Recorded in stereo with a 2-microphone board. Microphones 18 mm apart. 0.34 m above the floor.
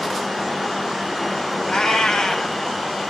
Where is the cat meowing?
40° left (ahead or behind), 1.0 m.